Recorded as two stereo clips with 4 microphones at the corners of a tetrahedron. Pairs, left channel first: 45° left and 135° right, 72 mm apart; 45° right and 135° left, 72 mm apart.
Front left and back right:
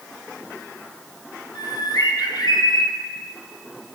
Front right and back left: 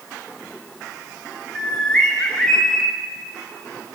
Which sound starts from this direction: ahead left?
A bird, at 1.6 s.